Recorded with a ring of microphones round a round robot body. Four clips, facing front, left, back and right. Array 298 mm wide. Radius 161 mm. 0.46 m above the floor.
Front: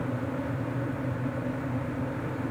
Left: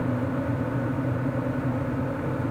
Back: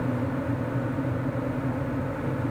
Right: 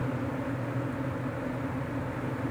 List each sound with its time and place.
Only background noise.